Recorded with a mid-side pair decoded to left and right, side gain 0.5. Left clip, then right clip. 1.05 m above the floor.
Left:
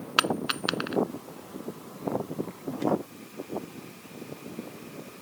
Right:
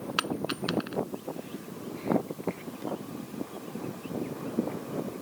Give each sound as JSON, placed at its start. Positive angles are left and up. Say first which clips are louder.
{"t": 0.2, "sound": "a dropped coin", "louder": "left 6 dB", "azimuth_deg": 40}